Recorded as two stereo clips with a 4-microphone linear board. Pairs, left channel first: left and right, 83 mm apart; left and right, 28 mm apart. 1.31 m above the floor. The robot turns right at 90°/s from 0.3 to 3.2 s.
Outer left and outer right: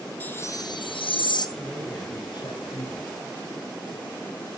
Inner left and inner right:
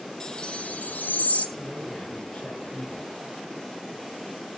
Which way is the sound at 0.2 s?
20° left.